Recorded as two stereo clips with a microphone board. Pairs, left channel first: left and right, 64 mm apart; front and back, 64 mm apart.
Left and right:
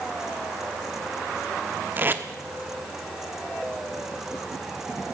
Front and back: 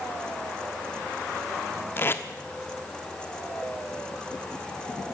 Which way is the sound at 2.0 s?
45° right.